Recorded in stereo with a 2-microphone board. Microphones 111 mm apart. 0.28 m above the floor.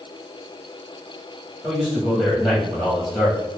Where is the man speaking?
Centre (ahead or behind), 1.2 m.